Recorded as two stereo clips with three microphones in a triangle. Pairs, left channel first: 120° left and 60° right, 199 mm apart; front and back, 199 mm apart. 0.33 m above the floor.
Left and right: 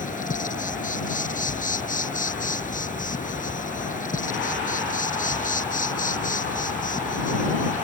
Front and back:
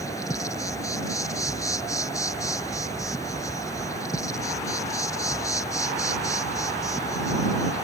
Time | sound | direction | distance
0.0 | an insect | 75° left | ?